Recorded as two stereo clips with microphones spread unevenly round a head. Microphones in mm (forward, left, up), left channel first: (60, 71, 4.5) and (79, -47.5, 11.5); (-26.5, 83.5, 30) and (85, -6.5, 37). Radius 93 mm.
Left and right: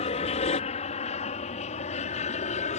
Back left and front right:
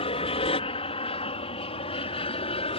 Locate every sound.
0.0 s an aircraft: 105° left; by 2.8 s 100° left